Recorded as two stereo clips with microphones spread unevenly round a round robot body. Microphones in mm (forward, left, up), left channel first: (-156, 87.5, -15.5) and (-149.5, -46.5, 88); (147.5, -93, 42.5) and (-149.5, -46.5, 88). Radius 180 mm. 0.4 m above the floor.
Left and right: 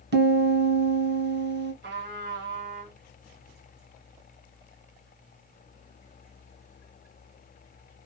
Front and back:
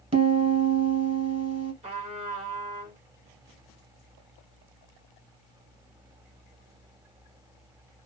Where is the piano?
115° right, 2 m.